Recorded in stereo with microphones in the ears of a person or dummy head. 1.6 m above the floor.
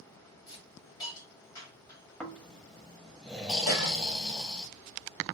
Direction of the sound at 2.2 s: Centre (ahead or behind).